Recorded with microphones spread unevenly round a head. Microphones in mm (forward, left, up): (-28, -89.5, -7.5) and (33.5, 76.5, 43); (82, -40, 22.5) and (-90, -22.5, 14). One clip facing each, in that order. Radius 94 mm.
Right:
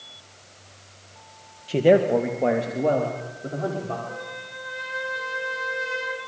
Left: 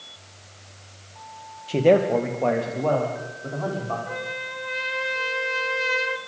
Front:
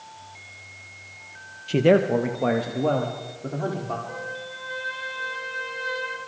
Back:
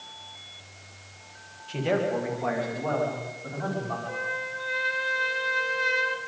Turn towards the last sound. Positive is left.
turn(degrees=110)